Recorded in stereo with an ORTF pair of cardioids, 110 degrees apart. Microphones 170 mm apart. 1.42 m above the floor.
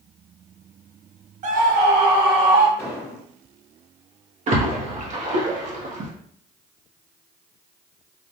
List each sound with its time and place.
1.4 s a scream: 45° right, 1.1 m; by 2.7 s 75° right, 2.5 m
2.8 s an explosion: 15° left, 1.4 m
4.5 s a splash: 45° right, 1.0 m